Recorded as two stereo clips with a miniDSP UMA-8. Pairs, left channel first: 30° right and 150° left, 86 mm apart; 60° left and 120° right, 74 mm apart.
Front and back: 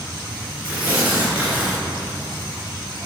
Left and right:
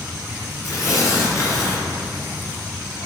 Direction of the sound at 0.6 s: 90° left.